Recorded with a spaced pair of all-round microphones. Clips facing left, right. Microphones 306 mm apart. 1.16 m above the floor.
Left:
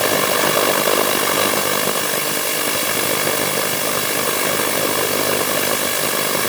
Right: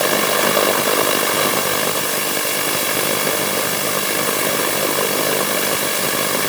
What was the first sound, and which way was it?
Only background noise.